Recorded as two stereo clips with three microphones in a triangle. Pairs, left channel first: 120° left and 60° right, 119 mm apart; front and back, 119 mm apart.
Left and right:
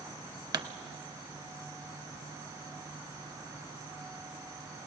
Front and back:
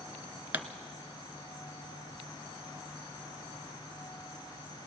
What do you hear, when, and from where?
0.5 s a pop: 110° right, 0.9 m